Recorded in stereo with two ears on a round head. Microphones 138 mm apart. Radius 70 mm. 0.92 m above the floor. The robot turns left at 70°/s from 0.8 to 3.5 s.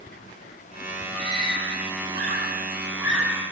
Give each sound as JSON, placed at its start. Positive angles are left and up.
{"t": 1.1, "sound": "a scream", "side_deg": -35, "distance_m": 9.5}